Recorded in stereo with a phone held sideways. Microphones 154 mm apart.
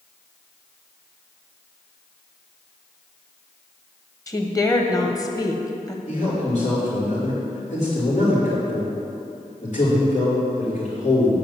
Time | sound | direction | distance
4.3 | a woman speaking | 25° left (ahead or behind) | 1.0 m
6.1 | a man speaking | 60° left (ahead or behind) | 3.5 m